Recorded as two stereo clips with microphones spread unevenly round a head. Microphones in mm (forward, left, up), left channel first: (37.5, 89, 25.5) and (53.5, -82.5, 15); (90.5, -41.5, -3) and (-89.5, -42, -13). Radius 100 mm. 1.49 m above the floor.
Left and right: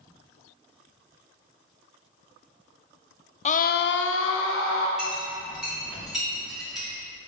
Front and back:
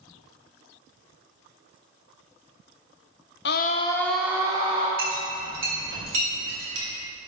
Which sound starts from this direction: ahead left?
A scream, at 3.5 s.